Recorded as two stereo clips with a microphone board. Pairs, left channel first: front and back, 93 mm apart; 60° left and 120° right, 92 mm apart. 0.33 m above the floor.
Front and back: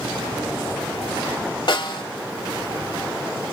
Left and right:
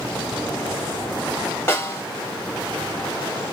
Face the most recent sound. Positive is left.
turn(degrees=5)